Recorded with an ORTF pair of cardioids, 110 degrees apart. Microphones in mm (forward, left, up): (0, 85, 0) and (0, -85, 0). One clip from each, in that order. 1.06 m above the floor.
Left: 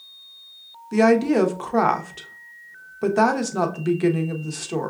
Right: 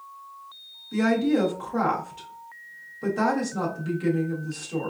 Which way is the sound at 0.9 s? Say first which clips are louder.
Left 6 dB; 45° left.